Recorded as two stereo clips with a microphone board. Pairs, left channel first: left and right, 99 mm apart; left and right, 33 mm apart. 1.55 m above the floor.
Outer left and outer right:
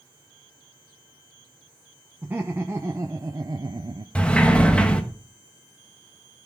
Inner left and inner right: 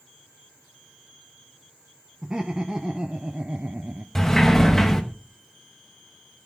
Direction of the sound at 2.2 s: 20° right (ahead or behind).